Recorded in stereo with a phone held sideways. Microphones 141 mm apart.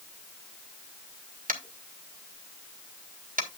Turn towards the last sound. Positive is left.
turn(degrees=-80)